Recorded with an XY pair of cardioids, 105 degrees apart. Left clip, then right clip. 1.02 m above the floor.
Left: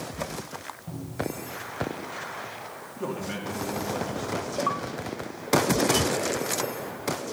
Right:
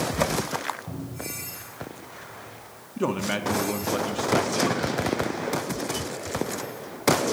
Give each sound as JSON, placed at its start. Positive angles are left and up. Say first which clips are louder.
{"t": 0.9, "sound": "a cupboard door", "louder": "left 3 dB", "azimuth_deg": -10, "distance_m": 4.0}
{"t": 3.0, "sound": "a man speaking", "louder": "right 7 dB", "azimuth_deg": -55, "distance_m": 1.5}